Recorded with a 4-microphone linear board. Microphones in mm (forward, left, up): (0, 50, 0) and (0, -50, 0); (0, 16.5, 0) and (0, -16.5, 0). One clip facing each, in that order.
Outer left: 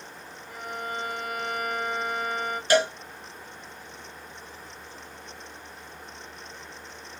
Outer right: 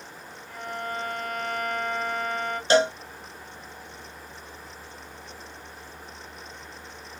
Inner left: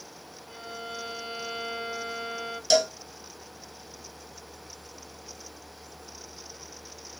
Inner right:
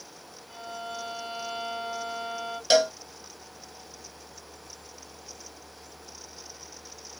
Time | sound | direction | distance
0.5 | a violin | 10° left (ahead or behind) | 1.1 m
2.7 | a cowbell | 25° right (ahead or behind) | 0.7 m